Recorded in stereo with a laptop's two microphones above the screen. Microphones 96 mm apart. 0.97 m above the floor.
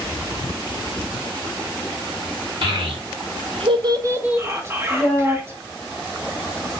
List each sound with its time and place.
2.6 s a child speaking: 65° right (ahead or behind), 1.0 m; by 5.4 s 15° left (ahead or behind), 1.1 m
4.4 s whispering: 25° right (ahead or behind), 0.7 m